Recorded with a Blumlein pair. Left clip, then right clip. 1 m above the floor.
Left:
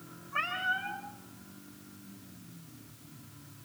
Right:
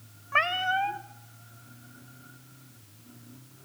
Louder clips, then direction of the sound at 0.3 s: Right 7 dB; 35° right.